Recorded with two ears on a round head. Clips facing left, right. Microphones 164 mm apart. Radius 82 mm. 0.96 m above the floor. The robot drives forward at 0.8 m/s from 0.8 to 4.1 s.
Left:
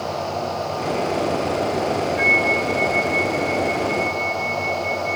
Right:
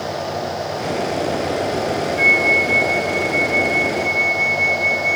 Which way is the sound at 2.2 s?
45° right (ahead or behind).